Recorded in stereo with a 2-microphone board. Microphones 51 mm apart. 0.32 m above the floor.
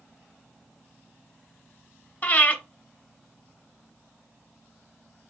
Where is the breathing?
35° left (ahead or behind), 0.8 m.